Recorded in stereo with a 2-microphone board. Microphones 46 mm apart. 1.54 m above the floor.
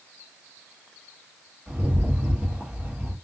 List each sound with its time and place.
1.7 s a rattle: 20° right (ahead or behind), 1.2 m